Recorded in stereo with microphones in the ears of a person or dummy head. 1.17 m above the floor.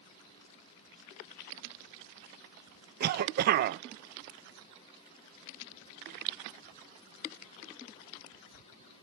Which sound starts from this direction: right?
A cough, at 3.0 s.